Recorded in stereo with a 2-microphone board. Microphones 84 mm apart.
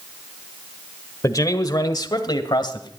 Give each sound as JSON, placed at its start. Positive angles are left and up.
{"t": 1.2, "sound": "a man speaking", "side_deg": 45, "distance_m": 1.4}